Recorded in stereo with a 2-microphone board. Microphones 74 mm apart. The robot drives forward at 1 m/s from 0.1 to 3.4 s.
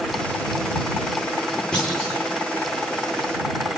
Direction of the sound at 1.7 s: 10° left (ahead or behind).